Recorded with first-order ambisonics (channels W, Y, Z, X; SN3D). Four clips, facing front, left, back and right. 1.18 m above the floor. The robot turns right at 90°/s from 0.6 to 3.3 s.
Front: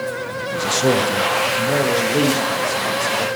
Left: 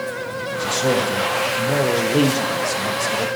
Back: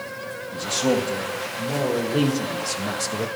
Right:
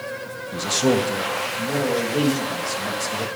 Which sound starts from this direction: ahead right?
A man speaking, at 0.5 s.